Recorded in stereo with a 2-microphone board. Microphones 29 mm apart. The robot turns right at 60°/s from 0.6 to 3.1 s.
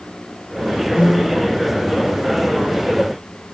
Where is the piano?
105° left, 1.5 m; by 1.5 s 135° left, 1.5 m.